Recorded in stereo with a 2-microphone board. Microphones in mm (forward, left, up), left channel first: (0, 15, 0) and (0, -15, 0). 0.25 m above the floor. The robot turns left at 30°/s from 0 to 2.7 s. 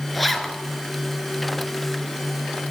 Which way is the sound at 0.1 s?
Centre (ahead or behind).